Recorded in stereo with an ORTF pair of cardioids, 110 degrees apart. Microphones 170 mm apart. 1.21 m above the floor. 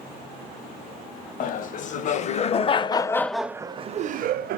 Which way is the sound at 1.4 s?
55° left.